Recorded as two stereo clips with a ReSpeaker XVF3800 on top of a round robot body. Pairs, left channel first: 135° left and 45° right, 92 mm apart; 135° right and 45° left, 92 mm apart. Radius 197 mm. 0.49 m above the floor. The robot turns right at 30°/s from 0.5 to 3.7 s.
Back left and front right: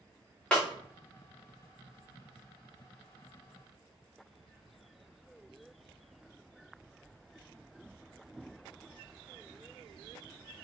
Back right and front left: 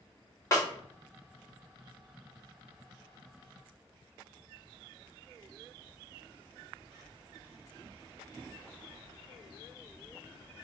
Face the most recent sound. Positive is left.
turn(degrees=-60)